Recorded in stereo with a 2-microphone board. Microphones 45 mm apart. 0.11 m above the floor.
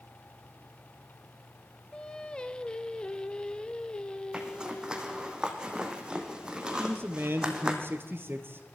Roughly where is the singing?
Centre.